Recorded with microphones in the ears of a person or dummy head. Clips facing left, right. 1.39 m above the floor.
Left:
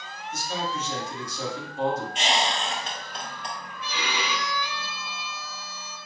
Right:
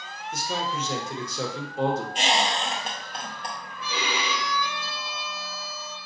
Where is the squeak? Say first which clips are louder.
Right 1 dB; 35° right (ahead or behind), 0.8 m.